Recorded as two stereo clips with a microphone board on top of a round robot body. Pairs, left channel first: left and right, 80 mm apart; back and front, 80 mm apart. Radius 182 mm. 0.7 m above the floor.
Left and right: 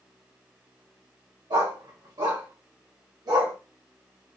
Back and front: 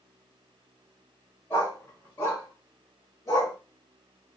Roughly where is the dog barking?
Behind right.